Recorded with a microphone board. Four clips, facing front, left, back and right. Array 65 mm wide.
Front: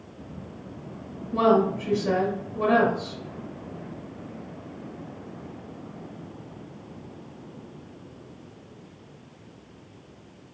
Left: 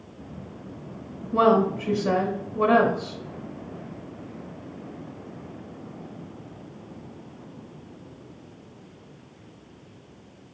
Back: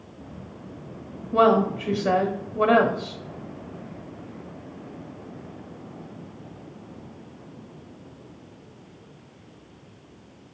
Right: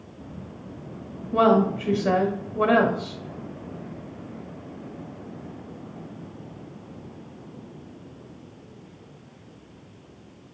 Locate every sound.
1.3 s a woman speaking: 140° right, 1.1 m